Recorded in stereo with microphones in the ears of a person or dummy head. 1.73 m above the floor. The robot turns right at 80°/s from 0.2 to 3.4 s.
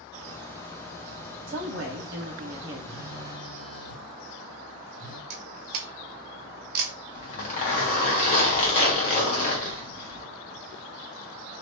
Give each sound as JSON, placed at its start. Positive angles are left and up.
{"t": 1.5, "sound": "a woman speaking", "azimuth_deg": -120, "distance_m": 1.2}
{"t": 2.9, "sound": "a phone buzzing", "azimuth_deg": 15, "distance_m": 1.1}
{"t": 5.3, "sound": "a camera shutter", "side_deg": -50, "distance_m": 0.5}
{"t": 7.1, "sound": "a zipper", "side_deg": 35, "distance_m": 1.1}